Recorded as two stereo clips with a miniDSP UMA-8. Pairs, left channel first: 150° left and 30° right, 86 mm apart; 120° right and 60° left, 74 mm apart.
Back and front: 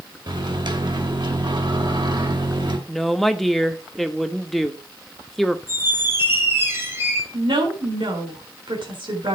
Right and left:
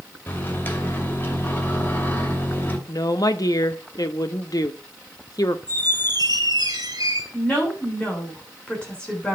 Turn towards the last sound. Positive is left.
turn(degrees=-45)